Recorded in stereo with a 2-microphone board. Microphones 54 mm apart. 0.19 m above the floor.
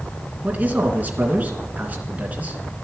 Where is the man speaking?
30° right (ahead or behind), 2.5 m.